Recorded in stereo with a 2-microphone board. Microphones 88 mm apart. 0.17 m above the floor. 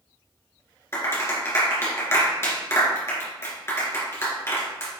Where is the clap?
30° left (ahead or behind), 2 m.